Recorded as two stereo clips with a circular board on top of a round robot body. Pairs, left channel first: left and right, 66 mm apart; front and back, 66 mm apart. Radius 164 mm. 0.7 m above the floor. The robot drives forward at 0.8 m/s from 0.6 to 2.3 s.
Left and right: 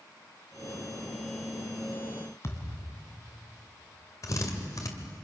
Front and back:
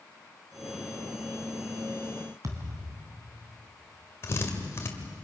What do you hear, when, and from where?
2.4 s a thud: 140° left, 2.0 m
4.2 s a drill: 50° left, 2 m